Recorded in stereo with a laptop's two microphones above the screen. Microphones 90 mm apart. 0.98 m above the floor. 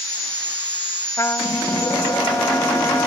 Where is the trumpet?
30° left (ahead or behind).